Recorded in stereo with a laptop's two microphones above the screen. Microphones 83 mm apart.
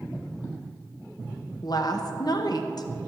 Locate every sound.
1.6 s a woman speaking: 55° left (ahead or behind), 0.8 m